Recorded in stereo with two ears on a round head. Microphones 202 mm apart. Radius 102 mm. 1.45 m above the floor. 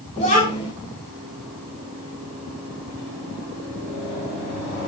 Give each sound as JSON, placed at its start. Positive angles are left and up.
{"t": 0.2, "sound": "a child speaking", "side_deg": 30, "distance_m": 3.5}